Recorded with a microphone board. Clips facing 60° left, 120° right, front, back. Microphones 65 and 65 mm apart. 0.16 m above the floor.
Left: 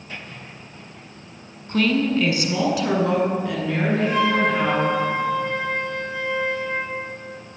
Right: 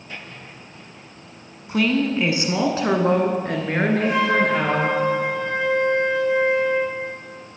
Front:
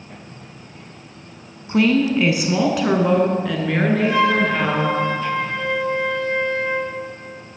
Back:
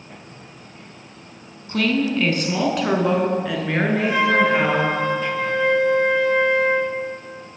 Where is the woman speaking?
45° right, 1.2 m; by 5.0 s 105° right, 2.5 m.